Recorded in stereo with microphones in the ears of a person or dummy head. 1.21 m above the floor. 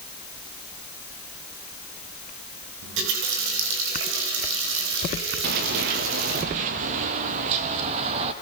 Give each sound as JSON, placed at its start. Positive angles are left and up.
{"t": 2.8, "sound": "a running tap", "side_deg": -70, "distance_m": 4.0}
{"t": 5.4, "sound": "running footsteps", "side_deg": -45, "distance_m": 1.7}